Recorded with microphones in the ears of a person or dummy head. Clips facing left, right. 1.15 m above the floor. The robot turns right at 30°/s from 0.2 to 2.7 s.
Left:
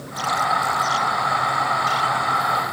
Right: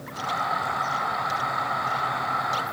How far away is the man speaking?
No man speaking in this recording.